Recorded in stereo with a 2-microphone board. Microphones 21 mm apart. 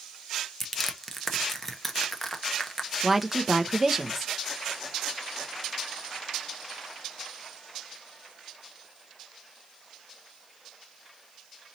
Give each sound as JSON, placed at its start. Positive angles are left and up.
{"t": 0.6, "sound": "crushing", "side_deg": 15, "distance_m": 0.6}
{"t": 3.0, "sound": "a woman speaking", "side_deg": -10, "distance_m": 0.6}